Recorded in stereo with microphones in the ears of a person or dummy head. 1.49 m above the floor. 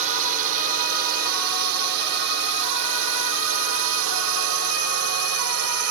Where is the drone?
40° right (ahead or behind); by 5.9 s 75° right (ahead or behind).